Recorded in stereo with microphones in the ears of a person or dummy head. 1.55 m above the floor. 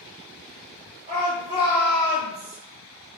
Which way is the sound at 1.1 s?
30° right (ahead or behind).